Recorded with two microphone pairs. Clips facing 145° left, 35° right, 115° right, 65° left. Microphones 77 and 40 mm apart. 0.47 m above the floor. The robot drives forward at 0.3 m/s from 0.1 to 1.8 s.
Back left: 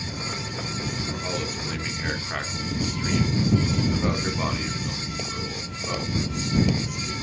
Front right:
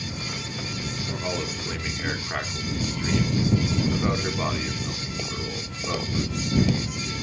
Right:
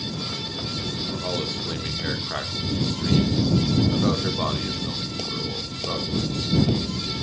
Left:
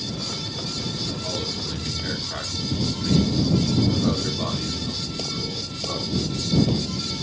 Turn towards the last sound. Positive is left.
turn(degrees=-120)